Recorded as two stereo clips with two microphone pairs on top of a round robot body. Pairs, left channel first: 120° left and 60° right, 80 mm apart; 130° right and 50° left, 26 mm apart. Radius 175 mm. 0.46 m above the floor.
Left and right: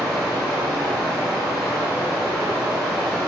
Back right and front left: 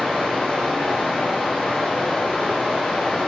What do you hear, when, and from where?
0.0 s running water: 155° right, 1.7 m